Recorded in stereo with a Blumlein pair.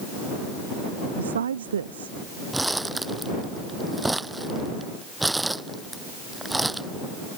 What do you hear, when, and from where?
1.2 s a woman speaking: 65° right
2.5 s crumpling: 5° right